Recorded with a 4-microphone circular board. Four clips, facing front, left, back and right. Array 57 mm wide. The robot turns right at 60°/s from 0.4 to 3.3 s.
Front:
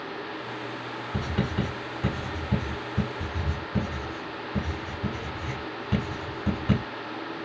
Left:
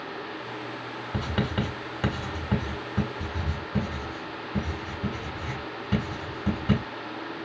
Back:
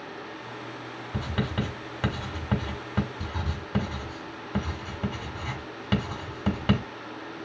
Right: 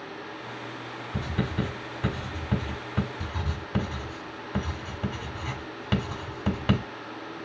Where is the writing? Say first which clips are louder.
Left 1 dB, front 1 dB; 85° left, 3 m; by 6.8 s 145° right, 3 m.